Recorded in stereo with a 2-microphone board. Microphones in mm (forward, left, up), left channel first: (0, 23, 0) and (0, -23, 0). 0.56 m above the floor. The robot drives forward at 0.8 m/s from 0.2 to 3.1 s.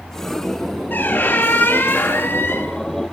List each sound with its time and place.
0.9 s a squeak: 50° left (ahead or behind), 5 m; by 2.8 s 65° left (ahead or behind), 4 m